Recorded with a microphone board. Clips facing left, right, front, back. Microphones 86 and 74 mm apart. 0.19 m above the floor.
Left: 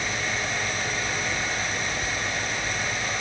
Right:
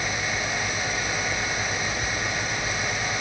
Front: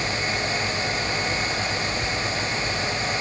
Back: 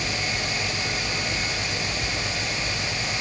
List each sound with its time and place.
Only background noise.